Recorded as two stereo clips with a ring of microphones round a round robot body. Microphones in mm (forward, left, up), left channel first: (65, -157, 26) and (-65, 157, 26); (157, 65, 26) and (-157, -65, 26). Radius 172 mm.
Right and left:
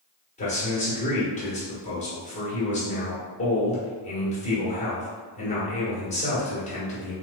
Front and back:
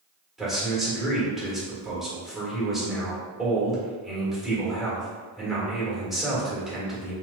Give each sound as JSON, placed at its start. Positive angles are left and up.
{"t": 0.4, "sound": "a man speaking", "azimuth_deg": -70, "distance_m": 1.1}